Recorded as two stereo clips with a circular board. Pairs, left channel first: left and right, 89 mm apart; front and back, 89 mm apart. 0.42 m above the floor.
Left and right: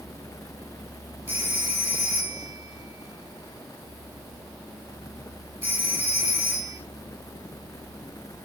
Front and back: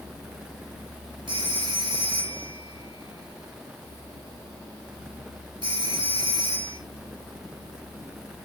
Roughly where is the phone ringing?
Behind right.